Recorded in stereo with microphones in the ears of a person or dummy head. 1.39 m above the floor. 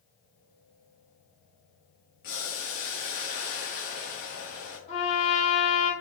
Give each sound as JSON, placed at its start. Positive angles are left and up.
{"t": 2.2, "sound": "boiling", "side_deg": 50, "distance_m": 1.2}
{"t": 4.9, "sound": "a trumpet", "side_deg": 35, "distance_m": 1.4}